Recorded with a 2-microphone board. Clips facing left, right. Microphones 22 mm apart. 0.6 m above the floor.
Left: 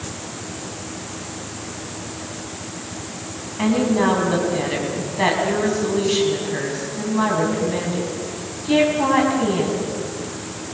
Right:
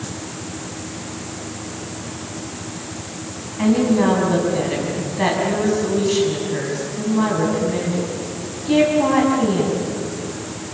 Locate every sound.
3.6 s a woman speaking: 10° left (ahead or behind), 5 m